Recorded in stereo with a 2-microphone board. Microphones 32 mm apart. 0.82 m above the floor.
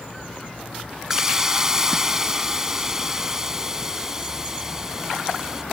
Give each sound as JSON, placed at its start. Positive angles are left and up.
{"t": 1.1, "sound": "a hiss", "side_deg": -15}